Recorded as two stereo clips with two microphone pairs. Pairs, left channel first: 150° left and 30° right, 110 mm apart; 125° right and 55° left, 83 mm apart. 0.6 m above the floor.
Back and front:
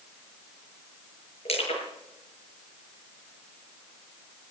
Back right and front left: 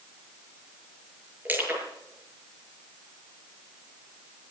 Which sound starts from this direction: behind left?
Crushing, at 1.4 s.